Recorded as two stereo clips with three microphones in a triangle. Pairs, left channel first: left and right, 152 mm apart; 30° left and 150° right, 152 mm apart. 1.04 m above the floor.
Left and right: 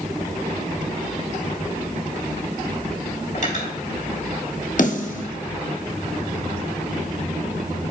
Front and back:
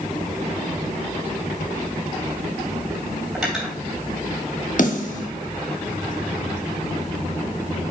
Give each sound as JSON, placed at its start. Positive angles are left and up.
{"t": 3.4, "sound": "cutlery clinking", "azimuth_deg": 120, "distance_m": 3.5}
{"t": 4.8, "sound": "a snare drum", "azimuth_deg": 60, "distance_m": 1.5}